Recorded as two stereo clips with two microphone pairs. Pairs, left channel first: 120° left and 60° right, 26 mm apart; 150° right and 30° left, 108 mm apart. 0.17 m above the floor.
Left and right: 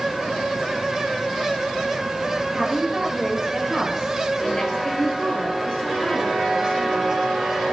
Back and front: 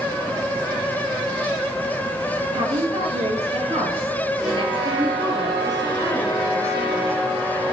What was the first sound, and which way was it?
A woman speaking, 20° left.